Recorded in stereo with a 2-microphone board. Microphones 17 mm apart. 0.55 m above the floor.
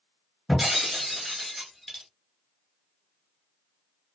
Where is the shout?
I don't hear a shout.